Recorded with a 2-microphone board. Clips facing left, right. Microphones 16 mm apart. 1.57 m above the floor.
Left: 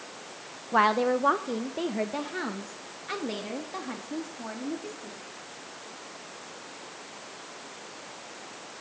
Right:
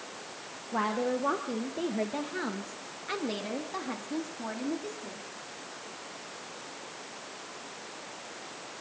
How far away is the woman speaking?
About 0.9 m.